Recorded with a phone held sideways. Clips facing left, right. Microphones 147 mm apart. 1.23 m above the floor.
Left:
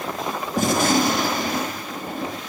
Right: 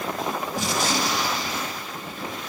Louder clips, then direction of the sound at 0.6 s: Left 9 dB; 50° left (ahead or behind).